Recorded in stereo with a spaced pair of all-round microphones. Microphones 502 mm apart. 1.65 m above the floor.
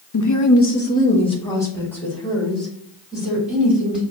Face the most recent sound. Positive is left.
turn(degrees=0)  # may be behind; listen again after turning